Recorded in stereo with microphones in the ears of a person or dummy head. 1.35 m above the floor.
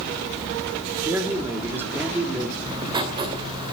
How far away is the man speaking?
About 3.5 m.